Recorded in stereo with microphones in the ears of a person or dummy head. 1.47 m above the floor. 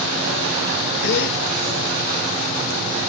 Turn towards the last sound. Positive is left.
turn(degrees=55)  # may be behind; listen again after turning